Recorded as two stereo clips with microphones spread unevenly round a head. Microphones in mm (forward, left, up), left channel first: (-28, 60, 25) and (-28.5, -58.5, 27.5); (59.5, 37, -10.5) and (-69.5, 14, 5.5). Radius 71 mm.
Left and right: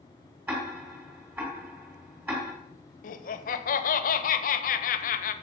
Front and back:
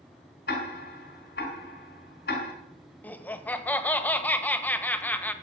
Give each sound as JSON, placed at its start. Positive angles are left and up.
{"t": 0.5, "sound": "ticking", "azimuth_deg": -10, "distance_m": 2.5}
{"t": 3.0, "sound": "laughter", "azimuth_deg": 90, "distance_m": 1.1}